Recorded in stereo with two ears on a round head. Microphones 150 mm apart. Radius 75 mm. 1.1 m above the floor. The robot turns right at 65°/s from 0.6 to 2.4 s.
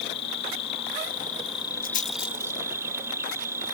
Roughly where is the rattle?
Left.